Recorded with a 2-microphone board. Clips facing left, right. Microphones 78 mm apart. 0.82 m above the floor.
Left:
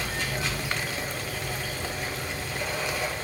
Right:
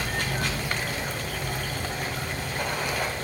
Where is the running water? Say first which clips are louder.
Right 2 dB; 60° right (ahead or behind), 1.6 m.